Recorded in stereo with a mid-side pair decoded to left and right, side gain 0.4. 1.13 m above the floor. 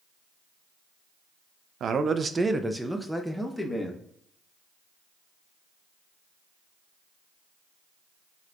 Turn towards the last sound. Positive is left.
turn(degrees=15)